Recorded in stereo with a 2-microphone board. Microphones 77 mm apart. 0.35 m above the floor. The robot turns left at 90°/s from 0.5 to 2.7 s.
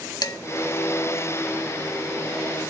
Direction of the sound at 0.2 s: 60° left (ahead or behind).